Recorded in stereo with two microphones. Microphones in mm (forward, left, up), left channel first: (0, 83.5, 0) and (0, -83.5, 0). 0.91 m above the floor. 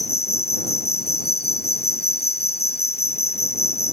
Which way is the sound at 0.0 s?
65° left (ahead or behind).